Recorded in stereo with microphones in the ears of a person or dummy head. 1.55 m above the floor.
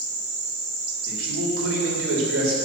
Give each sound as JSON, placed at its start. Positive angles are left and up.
{"t": 1.1, "sound": "a man speaking", "side_deg": -85, "distance_m": 3.0}